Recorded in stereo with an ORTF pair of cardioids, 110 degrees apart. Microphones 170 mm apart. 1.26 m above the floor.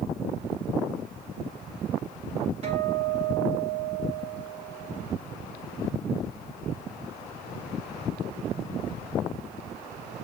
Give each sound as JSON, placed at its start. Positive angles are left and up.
{"t": 2.6, "sound": "a guitar", "azimuth_deg": -40, "distance_m": 2.5}